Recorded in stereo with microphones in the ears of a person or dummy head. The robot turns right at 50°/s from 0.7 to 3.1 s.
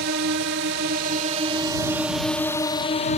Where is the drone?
50° right (ahead or behind); by 3.2 s 40° left (ahead or behind).